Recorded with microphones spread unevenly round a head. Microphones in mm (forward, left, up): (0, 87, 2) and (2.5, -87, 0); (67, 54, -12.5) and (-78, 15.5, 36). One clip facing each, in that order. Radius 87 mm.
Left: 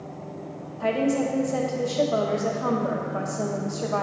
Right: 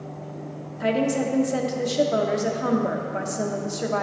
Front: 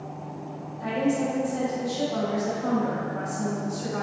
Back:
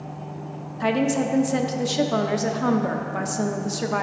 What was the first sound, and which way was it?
A woman speaking, 160° right.